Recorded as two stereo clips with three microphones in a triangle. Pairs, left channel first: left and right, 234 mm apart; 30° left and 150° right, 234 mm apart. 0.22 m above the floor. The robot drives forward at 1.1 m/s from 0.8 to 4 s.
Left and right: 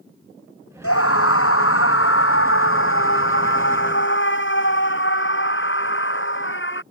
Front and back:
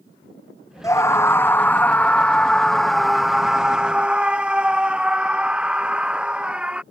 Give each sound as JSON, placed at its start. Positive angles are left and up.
{"t": 0.8, "sound": "a scream", "azimuth_deg": 105}